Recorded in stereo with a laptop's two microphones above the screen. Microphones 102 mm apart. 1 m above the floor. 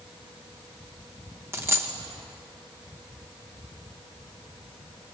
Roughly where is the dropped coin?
Right.